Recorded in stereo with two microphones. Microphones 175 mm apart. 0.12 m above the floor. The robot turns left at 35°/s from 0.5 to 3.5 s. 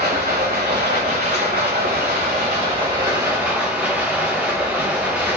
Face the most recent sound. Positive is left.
turn(degrees=-170)